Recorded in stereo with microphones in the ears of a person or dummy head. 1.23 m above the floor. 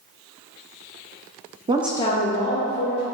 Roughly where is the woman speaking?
Right.